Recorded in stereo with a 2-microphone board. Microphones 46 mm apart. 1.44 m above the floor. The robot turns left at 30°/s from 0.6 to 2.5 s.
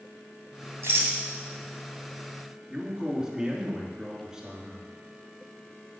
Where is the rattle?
60° right (ahead or behind), 3 m; by 1.2 s 55° right (ahead or behind), 3 m.